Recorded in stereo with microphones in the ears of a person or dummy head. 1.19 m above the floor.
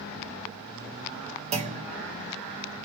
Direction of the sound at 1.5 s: 40° right (ahead or behind).